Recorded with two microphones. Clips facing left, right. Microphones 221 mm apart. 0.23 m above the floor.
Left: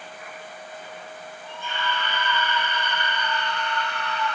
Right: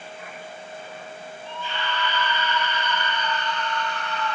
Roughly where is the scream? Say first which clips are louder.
Even; left.